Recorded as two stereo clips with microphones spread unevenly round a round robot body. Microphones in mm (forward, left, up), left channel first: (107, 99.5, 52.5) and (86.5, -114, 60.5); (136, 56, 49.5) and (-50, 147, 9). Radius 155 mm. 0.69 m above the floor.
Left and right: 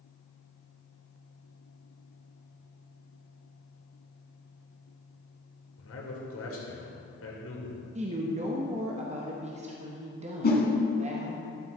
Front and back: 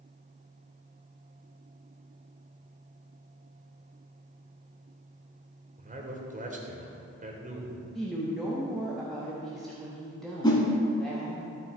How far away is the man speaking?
About 2.5 m.